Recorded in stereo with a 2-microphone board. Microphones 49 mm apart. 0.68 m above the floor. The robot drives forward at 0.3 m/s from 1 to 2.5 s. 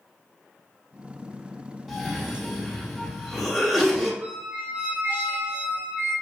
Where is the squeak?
50° right (ahead or behind), 1.5 m.